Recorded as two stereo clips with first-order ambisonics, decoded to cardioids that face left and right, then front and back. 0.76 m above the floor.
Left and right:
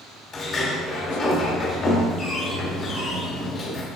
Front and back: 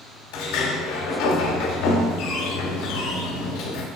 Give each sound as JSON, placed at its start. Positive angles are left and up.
{"t": 0.3, "sound": "a sliding door", "azimuth_deg": 25, "distance_m": 1.6}